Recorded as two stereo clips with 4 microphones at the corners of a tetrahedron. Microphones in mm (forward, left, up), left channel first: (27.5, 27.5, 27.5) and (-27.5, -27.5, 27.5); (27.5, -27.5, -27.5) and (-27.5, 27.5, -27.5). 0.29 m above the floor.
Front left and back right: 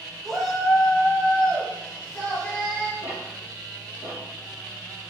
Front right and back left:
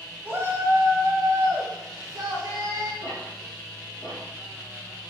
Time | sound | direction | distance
0.2 | a shout | 130° left | 0.9 m
3.0 | ticking | 5° right | 2.5 m